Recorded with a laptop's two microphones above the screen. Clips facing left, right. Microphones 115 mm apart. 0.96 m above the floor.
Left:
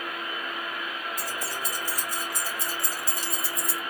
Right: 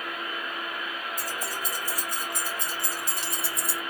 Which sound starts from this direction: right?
Keys jangling, at 1.2 s.